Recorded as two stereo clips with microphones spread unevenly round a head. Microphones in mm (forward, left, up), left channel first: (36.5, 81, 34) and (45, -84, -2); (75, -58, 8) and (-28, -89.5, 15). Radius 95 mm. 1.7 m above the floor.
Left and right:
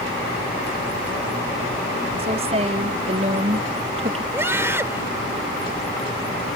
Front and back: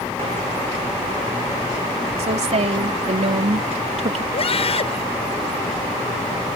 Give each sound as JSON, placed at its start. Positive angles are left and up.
{"t": 2.2, "sound": "a woman speaking", "azimuth_deg": -150}
{"t": 4.3, "sound": "a scream", "azimuth_deg": -10}